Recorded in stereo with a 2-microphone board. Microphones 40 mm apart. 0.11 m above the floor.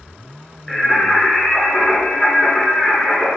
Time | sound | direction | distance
0.7 | singing | 5° left (ahead or behind) | 1.3 m